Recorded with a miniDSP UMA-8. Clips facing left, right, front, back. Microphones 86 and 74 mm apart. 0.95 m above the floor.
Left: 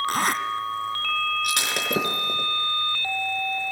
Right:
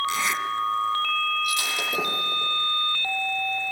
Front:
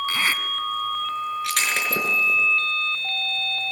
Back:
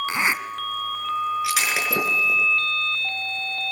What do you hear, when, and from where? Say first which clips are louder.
0.1 s a zipper: left 2 dB, back 4 dB; 115° left, 1.4 m
1.4 s breaking glass: left 1 dB, back 1 dB; 95° left, 5 m